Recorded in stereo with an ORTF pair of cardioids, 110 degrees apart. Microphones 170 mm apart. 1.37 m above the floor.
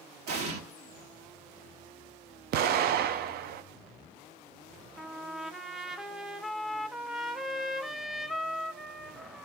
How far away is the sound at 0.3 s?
About 2.5 m.